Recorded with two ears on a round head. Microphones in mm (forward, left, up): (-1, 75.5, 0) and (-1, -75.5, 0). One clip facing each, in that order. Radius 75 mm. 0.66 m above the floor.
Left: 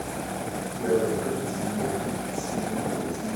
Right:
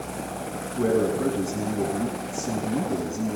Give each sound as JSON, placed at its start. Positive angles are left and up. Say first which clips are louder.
{"t": 0.8, "sound": "a man speaking", "louder": "right 2 dB", "side_deg": -60, "distance_m": 6.0}